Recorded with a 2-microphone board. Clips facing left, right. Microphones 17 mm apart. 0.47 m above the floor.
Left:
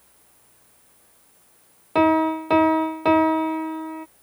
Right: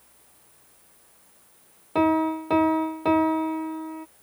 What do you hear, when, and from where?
1.9 s a piano: 30° left (ahead or behind)